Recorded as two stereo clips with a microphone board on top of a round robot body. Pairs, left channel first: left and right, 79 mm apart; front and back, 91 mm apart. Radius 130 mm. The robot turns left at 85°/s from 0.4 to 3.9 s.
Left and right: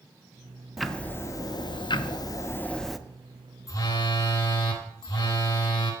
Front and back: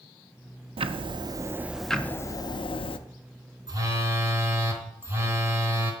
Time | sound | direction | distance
0.8 | ticking | straight behind | 0.6 m
3.7 | a phone buzzing | 140° left | 1.4 m